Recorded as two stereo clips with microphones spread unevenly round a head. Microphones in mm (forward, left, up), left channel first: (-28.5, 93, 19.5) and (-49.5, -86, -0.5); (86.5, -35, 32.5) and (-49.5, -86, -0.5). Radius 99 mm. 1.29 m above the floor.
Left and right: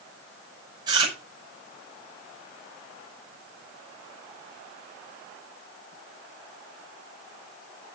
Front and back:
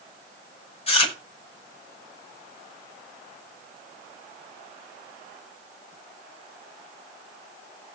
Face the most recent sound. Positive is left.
turn(degrees=-25)